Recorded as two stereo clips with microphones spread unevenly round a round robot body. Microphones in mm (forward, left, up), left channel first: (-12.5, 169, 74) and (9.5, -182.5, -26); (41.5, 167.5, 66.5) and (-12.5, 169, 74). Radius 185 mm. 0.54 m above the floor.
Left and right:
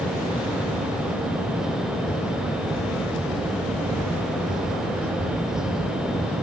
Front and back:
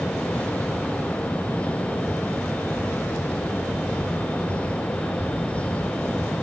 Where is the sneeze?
No sneeze in this recording.